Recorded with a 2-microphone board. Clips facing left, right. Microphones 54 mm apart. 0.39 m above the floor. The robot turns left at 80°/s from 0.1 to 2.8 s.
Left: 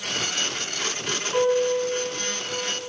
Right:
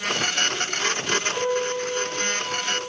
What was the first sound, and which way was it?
A piano, 20° left.